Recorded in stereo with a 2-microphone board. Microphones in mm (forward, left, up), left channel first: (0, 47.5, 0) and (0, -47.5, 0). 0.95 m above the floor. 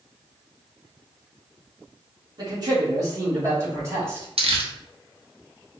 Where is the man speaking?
45° right (ahead or behind), 2.0 m; by 4.3 s 30° right (ahead or behind), 2.5 m.